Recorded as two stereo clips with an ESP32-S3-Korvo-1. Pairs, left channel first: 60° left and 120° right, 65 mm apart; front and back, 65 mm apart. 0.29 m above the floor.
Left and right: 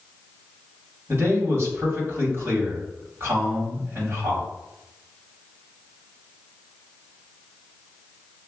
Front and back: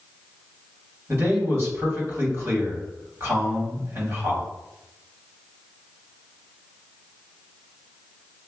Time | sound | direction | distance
1.1 | a man speaking | 155° right | 1.9 m